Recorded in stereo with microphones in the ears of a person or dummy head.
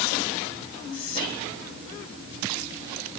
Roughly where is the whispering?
Left.